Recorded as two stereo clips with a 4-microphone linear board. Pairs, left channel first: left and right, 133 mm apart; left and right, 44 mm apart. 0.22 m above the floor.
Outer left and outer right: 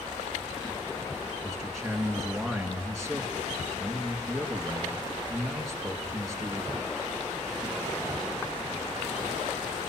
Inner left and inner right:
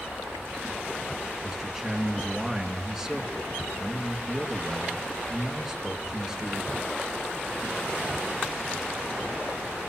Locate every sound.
1.4 s a man speaking: centre (ahead or behind), 2.5 m